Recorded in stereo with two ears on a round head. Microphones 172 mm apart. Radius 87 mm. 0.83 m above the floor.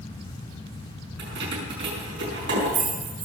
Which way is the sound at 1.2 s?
70° right (ahead or behind).